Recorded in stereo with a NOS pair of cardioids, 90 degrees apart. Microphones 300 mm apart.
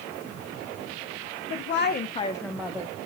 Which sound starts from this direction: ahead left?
A woman speaking, at 1.5 s.